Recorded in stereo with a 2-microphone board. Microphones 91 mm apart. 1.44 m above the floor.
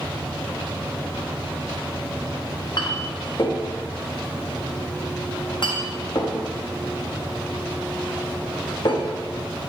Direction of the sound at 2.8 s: 55° left (ahead or behind).